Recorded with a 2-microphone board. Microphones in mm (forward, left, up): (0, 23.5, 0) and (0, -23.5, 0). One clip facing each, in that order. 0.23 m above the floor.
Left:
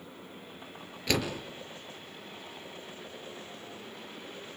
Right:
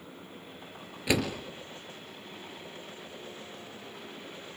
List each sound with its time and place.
1.1 s a door slam: 10° right (ahead or behind), 4 m